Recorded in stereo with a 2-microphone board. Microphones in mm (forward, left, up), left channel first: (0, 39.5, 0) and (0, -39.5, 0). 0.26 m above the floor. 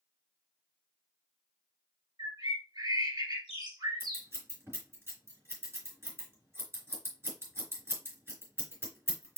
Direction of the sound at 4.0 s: 35° right (ahead or behind).